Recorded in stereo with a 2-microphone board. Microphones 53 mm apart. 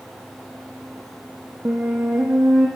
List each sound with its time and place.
1.6 s a flute: 30° right (ahead or behind), 4 m